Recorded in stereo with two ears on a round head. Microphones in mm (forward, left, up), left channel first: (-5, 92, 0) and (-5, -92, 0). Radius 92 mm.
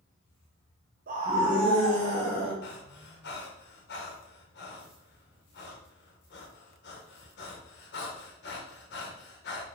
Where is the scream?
45° right (ahead or behind), 0.6 m; by 2.5 s 25° left (ahead or behind), 1.8 m.